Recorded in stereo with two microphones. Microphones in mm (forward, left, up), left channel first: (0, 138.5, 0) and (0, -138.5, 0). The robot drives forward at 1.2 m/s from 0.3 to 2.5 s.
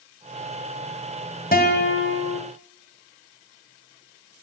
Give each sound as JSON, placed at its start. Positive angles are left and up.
{"t": 1.5, "sound": "a guitar", "side_deg": 35, "distance_m": 1.5}